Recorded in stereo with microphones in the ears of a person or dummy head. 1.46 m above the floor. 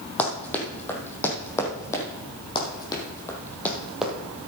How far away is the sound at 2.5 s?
About 4 m.